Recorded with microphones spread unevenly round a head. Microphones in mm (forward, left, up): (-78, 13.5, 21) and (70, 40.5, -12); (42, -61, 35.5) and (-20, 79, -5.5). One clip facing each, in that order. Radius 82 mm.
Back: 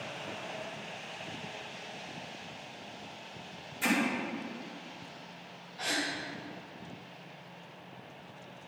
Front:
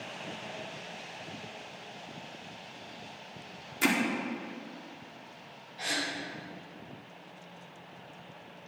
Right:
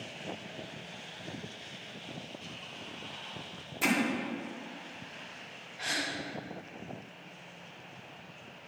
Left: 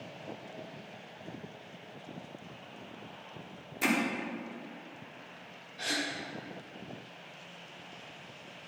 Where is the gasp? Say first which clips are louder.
Back 1 dB, left 2 dB; 85° left, 2 m.